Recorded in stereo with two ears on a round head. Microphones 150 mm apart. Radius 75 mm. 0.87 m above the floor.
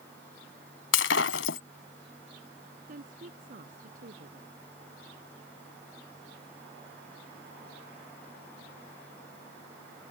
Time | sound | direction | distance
0.9 | breaking glass | 80° left | ?
2.9 | a woman speaking | 50° right (ahead or behind) | ?